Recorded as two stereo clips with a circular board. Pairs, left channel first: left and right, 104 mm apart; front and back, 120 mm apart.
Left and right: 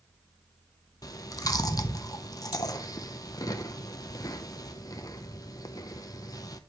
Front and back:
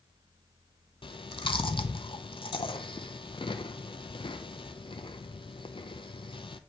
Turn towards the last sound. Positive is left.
turn(degrees=40)